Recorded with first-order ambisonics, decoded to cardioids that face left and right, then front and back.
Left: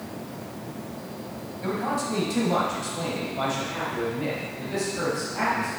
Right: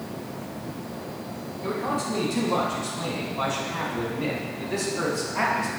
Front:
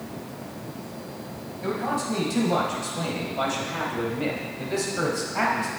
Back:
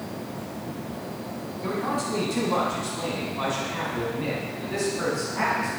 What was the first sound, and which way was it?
A man speaking, 45° left.